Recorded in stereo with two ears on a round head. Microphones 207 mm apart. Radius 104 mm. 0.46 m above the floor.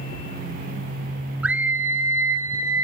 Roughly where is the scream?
Centre.